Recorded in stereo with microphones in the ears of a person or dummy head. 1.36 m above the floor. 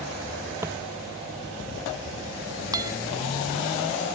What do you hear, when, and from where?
0.6 s footsteps: 15° right (ahead or behind)
2.7 s a guitar: 20° right (ahead or behind)